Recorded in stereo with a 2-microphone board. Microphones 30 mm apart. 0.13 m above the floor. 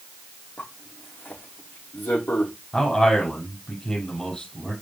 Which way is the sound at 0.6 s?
85° left.